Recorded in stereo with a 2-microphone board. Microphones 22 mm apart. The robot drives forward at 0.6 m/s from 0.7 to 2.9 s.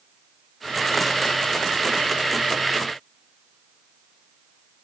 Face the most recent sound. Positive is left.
No sound to turn to.